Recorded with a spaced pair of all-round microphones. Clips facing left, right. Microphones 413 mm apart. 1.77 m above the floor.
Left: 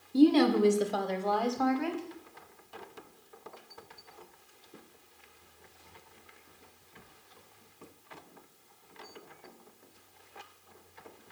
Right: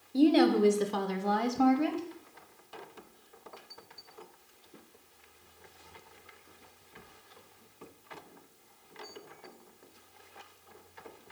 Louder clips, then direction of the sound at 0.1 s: Left 1 dB; 15° left (ahead or behind).